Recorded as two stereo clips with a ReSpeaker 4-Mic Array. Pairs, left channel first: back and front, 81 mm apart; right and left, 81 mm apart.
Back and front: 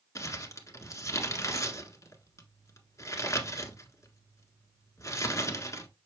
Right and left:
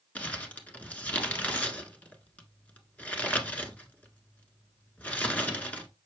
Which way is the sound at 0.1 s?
155° right.